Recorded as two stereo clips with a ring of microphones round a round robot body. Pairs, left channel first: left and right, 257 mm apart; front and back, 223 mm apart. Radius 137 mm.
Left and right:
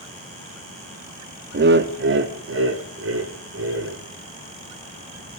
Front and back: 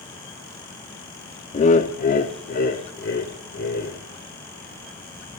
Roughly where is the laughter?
Ahead right.